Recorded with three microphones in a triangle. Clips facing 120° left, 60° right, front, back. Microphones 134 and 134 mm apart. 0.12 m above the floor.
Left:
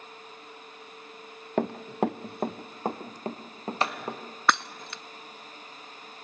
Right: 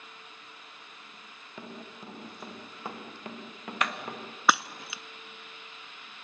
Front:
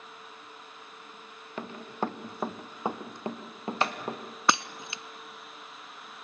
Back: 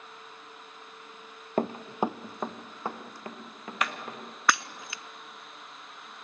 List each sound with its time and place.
1.6 s running footsteps: 140° left, 0.8 m; by 4.2 s 55° left, 3 m
4.5 s breaking glass: 15° left, 0.5 m